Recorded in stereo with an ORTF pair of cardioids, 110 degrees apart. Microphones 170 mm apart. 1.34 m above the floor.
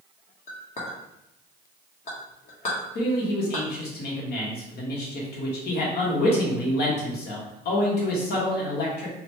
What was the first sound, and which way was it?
A clink, 40° left.